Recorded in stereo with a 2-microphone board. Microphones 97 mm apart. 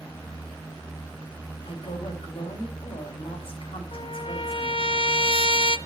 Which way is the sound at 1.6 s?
70° left (ahead or behind).